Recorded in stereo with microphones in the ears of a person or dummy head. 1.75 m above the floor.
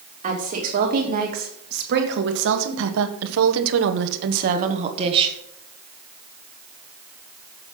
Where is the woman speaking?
40° right (ahead or behind), 3 m; by 5.4 s 25° right (ahead or behind), 1.7 m.